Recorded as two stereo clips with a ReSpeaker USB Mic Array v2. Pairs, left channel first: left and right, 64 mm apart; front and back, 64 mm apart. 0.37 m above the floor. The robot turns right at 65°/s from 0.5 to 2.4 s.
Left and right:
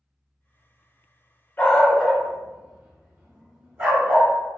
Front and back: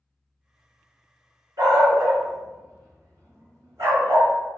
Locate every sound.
1.6 s a dog barking: 155° left, 1.3 m; by 4.3 s 150° right, 1.3 m